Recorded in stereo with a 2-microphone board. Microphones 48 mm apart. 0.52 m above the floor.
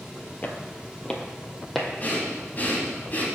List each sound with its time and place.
0.4 s footsteps: 35° left (ahead or behind), 0.6 m; by 1.9 s 5° left (ahead or behind), 1.1 m
2.0 s breathing: 40° left (ahead or behind), 1.3 m